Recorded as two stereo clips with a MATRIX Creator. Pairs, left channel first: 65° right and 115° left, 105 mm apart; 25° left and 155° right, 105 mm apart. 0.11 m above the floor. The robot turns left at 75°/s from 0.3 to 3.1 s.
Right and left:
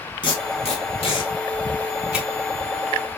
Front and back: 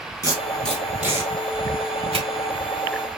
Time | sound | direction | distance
0.2 | tape being pulled | 30° right | 2.5 m